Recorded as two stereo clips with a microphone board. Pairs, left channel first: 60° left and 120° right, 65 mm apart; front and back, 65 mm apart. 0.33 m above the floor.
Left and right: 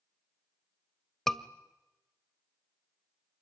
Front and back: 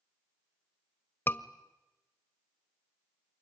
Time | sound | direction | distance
1.3 | a scream | 25° right | 1.0 m